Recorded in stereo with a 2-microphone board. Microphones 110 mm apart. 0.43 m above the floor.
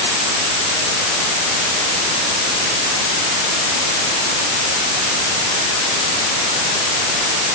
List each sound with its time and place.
Only background noise.